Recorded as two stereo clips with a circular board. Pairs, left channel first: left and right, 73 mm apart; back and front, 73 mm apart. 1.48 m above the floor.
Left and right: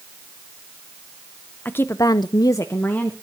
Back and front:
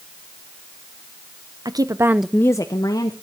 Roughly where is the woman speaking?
Ahead left.